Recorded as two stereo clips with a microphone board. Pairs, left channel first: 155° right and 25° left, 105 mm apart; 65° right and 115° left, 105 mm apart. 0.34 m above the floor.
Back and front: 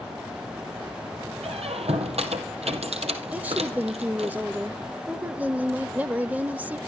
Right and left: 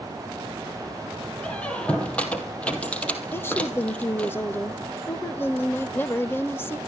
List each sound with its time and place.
1.4 s a squeak: 10° left, 2 m
3.3 s a woman speaking: 35° right, 0.9 m